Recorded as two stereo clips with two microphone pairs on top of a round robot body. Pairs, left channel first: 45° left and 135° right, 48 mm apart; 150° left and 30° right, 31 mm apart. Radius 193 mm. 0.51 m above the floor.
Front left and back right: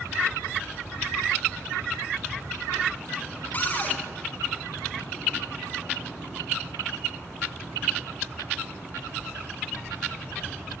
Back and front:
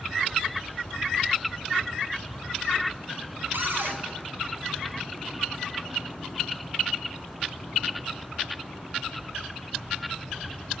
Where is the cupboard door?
15° right, 3.5 m.